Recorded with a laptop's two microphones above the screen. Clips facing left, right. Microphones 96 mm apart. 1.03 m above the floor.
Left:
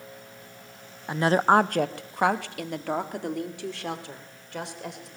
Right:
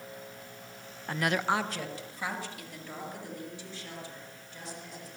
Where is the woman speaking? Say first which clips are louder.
Left 9 dB; 15° left (ahead or behind), 0.6 m; by 5.1 s 80° left, 5 m.